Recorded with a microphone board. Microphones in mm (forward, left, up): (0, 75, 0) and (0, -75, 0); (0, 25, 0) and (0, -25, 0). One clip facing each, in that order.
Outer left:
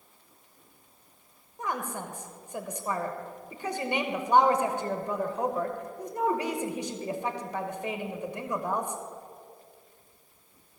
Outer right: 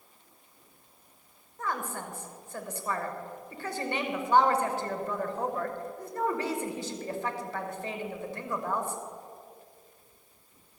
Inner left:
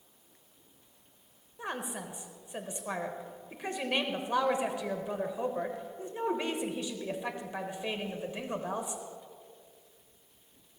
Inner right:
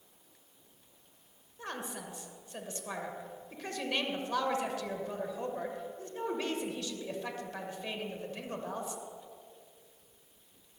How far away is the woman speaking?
About 1.0 m.